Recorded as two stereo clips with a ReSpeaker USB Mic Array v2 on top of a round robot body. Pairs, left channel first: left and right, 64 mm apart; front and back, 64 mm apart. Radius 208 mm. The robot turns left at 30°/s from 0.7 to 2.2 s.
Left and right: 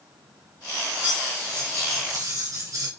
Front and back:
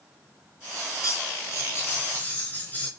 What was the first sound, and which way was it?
Cutlery clinking, 25° right.